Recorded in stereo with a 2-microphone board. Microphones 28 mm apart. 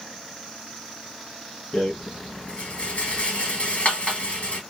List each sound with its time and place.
1.7 s a rattle: 50° left (ahead or behind), 3 m